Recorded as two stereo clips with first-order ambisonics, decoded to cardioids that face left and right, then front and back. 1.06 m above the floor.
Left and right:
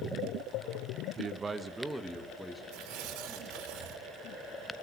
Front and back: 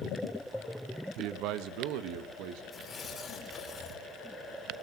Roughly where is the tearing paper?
Right.